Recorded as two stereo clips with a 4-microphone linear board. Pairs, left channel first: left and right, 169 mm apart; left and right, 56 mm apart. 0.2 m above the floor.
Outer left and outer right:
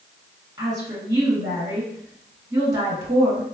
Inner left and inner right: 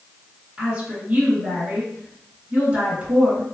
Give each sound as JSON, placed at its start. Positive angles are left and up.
{"t": 0.6, "sound": "a woman speaking", "side_deg": -20, "distance_m": 2.0}